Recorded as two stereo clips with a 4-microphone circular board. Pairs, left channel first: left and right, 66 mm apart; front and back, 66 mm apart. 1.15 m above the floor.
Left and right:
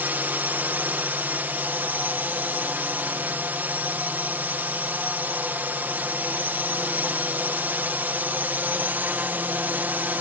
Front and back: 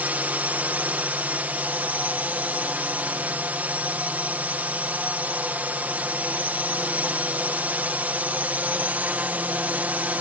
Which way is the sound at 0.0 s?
130° right.